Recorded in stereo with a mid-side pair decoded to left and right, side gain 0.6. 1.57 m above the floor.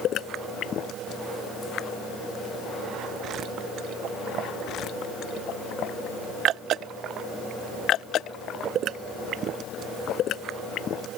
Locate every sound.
Only background noise.